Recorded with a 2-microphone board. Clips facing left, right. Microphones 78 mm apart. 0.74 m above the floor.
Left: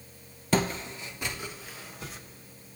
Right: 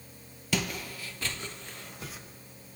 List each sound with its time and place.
0.5 s footsteps: 35° left (ahead or behind), 1.0 m; by 2.2 s 5° right (ahead or behind), 1.8 m